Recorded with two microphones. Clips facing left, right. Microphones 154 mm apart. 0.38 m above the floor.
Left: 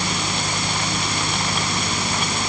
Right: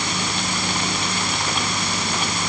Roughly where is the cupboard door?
No cupboard door in this recording.